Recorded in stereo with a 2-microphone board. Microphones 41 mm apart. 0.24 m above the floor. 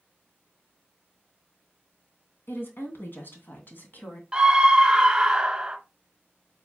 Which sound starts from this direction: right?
A scream, at 4.3 s.